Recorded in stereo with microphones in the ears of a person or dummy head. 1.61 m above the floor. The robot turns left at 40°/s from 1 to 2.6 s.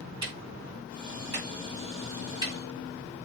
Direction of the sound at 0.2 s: 25° right (ahead or behind).